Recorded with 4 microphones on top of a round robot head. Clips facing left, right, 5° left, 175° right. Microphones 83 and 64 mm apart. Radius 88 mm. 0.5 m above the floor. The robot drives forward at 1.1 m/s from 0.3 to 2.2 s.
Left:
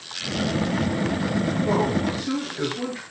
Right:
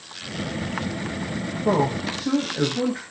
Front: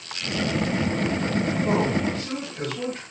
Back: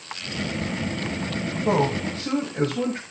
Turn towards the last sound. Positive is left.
turn(degrees=-120)